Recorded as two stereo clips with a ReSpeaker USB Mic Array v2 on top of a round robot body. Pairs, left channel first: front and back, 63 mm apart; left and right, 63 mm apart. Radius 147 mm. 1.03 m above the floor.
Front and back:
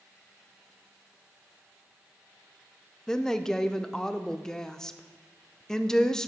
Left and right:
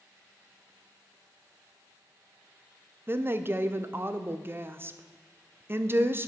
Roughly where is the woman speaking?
Right.